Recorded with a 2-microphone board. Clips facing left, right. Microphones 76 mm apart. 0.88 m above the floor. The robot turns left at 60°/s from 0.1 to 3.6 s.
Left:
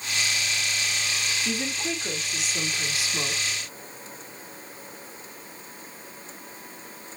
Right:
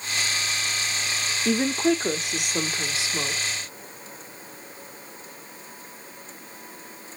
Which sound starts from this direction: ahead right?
A woman speaking, at 1.4 s.